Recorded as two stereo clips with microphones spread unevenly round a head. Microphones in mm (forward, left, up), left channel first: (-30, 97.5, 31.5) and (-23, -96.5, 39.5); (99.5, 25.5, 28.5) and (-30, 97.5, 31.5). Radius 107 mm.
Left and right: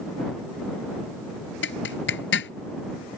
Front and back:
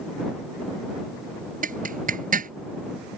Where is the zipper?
120° left.